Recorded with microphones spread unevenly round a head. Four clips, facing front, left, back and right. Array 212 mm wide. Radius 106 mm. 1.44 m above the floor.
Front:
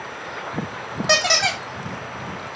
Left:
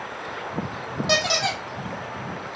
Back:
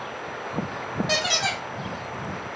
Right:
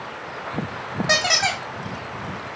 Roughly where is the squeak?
Ahead.